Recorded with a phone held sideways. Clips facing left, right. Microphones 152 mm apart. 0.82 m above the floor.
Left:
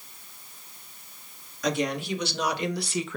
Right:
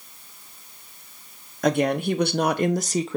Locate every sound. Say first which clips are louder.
1.6 s a woman speaking: right 6 dB; 50° right (ahead or behind), 1.2 m; by 3.2 s 25° right (ahead or behind), 0.6 m